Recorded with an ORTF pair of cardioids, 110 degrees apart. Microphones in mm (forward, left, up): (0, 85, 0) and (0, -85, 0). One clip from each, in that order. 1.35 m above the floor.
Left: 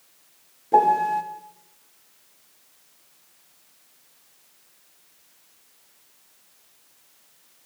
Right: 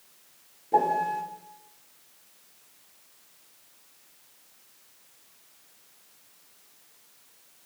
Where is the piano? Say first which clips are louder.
Left 6 dB; 30° left, 3.5 m.